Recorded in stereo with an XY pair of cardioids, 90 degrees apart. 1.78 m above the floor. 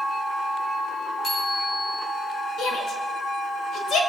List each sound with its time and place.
1.2 s a bicycle bell: 50° left, 8 m
2.6 s a shout: 70° left, 4 m